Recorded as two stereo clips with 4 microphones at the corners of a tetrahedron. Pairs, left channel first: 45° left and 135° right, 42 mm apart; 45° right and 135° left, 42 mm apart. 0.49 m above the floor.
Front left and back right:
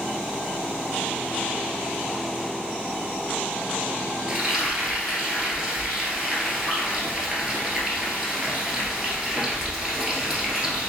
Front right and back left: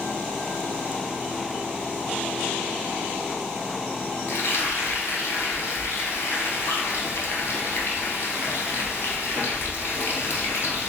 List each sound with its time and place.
4.3 s frying: 60° right, 1.4 m